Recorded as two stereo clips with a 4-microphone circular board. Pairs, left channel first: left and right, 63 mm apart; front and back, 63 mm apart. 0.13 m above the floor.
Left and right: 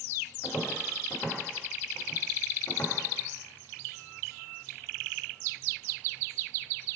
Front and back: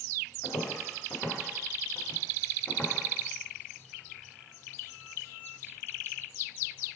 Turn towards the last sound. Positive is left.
turn(degrees=60)